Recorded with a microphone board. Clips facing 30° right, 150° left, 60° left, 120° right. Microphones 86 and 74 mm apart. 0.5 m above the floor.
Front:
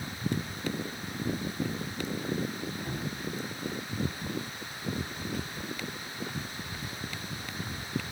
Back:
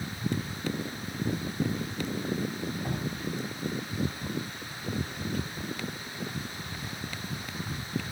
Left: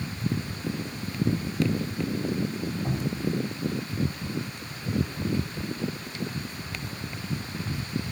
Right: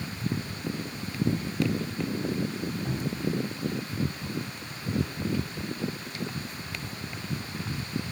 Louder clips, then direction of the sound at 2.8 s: Back 2 dB, left 2 dB; 115° left.